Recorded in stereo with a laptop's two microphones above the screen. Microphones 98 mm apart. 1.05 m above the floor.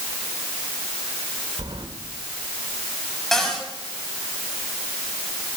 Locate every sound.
1.6 s keys jangling: 60° right (ahead or behind), 2.5 m
3.3 s a cupboard door: 5° left (ahead or behind), 6.5 m